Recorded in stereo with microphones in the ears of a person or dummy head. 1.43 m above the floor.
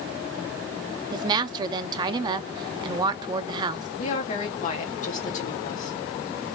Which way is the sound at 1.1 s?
30° right (ahead or behind).